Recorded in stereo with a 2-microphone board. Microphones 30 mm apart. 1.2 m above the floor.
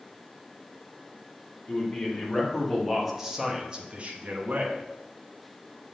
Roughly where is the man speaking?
Centre.